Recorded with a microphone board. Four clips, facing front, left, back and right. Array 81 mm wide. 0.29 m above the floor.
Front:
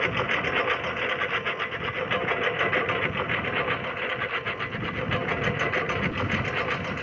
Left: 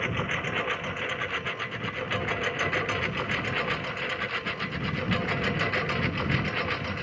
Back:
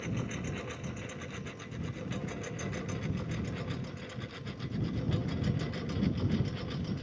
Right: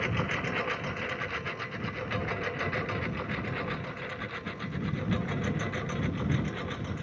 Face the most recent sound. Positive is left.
turn(degrees=20)